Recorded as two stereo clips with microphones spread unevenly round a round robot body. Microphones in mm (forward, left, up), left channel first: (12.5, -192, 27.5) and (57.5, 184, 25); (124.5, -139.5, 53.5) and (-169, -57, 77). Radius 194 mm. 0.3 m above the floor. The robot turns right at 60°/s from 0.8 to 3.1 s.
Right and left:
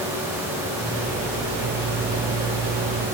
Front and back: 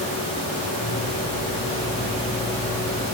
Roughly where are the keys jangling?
I don't hear keys jangling.